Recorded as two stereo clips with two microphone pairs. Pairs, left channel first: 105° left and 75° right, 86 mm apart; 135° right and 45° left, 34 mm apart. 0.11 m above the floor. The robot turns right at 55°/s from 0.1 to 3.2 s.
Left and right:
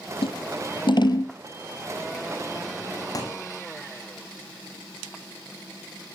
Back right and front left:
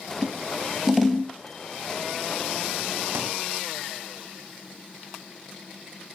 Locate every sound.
0.2 s scissors: 90° left, 1.3 m; by 1.3 s 155° left, 1.3 m
3.1 s a thud: 55° left, 7.5 m; by 3.4 s 60° left, 7.5 m